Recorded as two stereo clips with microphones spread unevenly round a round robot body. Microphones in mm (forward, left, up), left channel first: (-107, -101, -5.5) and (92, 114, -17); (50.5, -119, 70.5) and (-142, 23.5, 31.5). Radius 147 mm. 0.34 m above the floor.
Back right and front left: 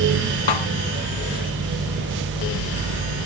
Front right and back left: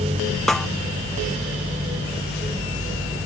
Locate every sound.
0.5 s a snare drum: 125° right